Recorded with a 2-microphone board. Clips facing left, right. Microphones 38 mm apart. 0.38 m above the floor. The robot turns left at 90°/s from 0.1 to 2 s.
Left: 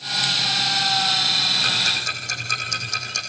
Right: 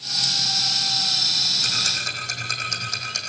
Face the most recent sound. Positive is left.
turn(degrees=0)  # may be behind; listen again after turning